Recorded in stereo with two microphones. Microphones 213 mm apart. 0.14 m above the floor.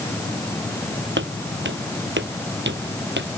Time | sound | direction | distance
1.2 | footsteps | 60° right (ahead or behind) | ?